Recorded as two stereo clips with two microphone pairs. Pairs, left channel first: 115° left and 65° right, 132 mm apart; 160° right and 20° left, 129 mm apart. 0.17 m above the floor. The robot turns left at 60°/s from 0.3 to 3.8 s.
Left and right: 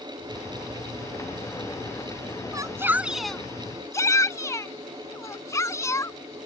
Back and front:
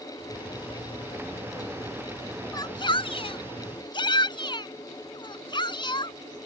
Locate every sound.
2.5 s a shout: 110° right; by 6.5 s 175° left